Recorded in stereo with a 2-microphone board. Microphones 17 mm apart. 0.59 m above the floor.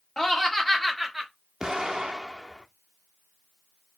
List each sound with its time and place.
0.2 s laughter: 35° left (ahead or behind), 1.1 m; by 1.3 s 10° right (ahead or behind), 1.4 m
1.6 s an explosion: 35° right (ahead or behind), 0.8 m